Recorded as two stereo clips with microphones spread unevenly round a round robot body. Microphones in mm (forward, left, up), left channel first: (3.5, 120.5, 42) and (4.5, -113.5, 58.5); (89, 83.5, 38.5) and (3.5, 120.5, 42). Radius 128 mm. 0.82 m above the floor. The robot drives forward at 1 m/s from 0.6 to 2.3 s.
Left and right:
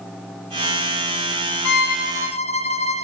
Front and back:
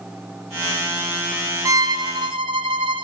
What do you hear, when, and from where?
1.6 s a violin: 120° left, 0.7 m; by 3.0 s 155° left, 1.1 m